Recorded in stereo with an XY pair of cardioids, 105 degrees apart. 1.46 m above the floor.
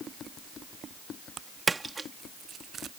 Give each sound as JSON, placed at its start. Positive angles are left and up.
{"t": 1.7, "sound": "a splash", "azimuth_deg": -25}